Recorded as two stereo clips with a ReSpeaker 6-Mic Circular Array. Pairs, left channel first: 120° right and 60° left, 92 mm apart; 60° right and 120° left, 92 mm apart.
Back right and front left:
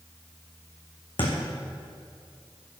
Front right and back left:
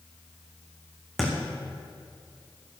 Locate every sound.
1.2 s a thud: 150° right, 2.5 m